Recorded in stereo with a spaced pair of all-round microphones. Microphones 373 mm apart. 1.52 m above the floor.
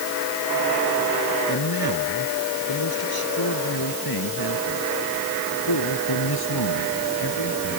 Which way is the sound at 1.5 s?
70° left (ahead or behind).